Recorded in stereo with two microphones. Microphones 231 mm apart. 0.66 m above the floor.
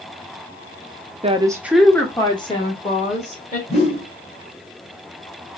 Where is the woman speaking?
25° right (ahead or behind), 0.7 m; by 3.6 s 35° left (ahead or behind), 1.9 m.